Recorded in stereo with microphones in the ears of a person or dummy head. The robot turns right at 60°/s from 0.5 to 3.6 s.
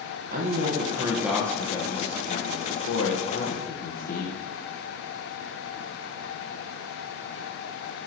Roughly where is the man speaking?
Ahead right.